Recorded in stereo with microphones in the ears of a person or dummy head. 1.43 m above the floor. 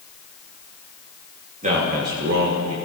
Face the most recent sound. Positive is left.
turn(degrees=-85)